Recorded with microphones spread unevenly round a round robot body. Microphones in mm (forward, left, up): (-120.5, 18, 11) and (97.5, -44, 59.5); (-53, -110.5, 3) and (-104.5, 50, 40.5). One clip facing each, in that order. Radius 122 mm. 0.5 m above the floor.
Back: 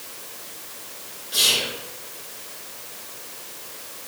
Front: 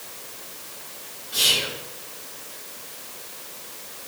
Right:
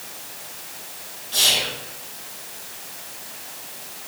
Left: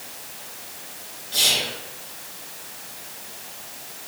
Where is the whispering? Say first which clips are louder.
Back 1 dB, right 1 dB; 175° right, 2.0 m.